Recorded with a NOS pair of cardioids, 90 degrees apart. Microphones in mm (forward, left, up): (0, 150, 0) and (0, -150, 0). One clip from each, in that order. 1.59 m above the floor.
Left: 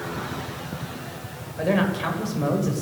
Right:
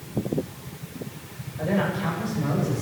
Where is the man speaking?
50° left, 8.5 m.